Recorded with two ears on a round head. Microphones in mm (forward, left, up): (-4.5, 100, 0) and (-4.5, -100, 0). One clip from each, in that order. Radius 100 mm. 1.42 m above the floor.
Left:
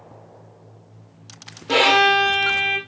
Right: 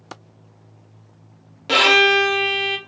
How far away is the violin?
About 0.8 m.